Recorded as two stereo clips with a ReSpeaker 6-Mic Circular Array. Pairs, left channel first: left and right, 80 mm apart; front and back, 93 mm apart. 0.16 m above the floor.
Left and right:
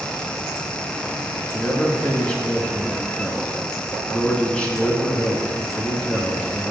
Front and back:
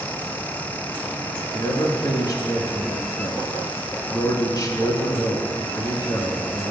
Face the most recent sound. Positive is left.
turn(degrees=20)